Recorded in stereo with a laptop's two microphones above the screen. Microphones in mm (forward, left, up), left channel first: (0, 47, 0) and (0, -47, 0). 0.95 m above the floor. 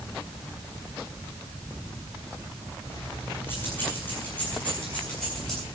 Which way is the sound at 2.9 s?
30° left (ahead or behind).